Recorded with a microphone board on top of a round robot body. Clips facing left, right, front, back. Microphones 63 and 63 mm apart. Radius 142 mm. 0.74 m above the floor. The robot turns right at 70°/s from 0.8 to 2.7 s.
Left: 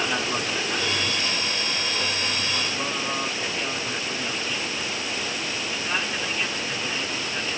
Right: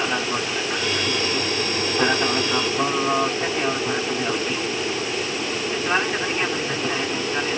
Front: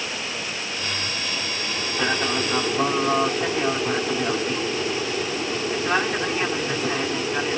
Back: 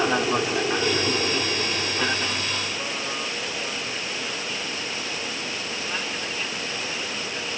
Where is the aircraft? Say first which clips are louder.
Right 2 dB, back 8 dB; 170° right; by 7.6 s 35° right.